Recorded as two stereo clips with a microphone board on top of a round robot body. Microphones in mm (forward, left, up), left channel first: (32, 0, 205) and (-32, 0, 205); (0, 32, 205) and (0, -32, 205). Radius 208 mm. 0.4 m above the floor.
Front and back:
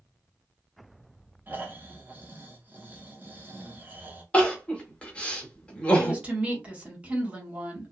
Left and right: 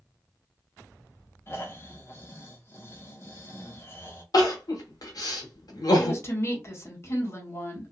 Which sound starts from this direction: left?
Crying, at 4.3 s.